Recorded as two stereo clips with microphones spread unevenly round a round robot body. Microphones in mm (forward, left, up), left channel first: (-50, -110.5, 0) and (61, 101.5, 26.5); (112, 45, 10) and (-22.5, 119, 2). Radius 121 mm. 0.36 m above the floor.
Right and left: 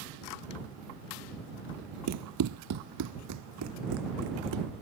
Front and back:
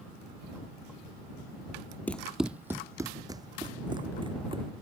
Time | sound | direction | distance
2.1 | running footsteps | 50° left | ?